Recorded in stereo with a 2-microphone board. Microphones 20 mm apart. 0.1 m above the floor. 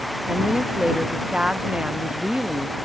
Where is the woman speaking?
55° right (ahead or behind).